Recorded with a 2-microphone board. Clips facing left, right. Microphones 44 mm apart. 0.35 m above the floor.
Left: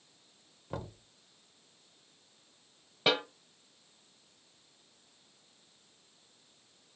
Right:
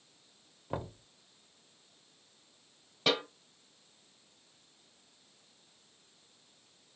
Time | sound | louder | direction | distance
0.7 | knocking | right 3 dB | 20° right (ahead or behind) | 0.7 m
3.1 | a snare drum | left 1 dB | 20° left (ahead or behind) | 1.3 m